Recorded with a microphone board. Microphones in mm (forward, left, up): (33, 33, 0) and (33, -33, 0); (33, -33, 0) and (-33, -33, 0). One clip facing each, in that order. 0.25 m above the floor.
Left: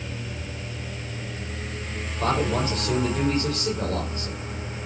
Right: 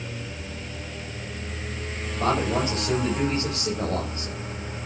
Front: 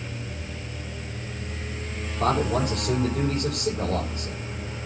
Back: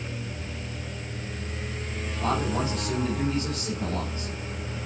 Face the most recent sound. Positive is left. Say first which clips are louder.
# even, front 4 dB
turn(degrees=-25)